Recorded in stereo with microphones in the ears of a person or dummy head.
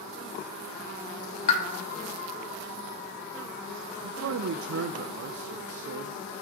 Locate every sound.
1.5 s a pop: 40° left (ahead or behind), 1.1 m
4.0 s a man speaking: 75° right (ahead or behind), 0.5 m